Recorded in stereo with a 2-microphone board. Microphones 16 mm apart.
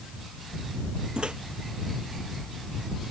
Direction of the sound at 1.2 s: 75° right (ahead or behind).